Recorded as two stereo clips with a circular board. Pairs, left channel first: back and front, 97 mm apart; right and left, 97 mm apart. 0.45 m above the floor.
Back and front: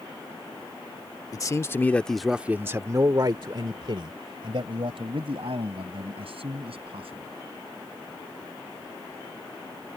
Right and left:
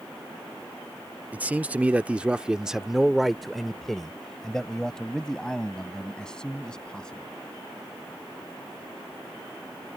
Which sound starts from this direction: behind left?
A man speaking, at 1.3 s.